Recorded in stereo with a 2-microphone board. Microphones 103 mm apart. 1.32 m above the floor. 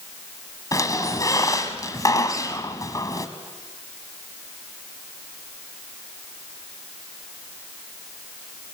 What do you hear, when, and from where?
0.7 s a squeak: 35° left (ahead or behind), 1.6 m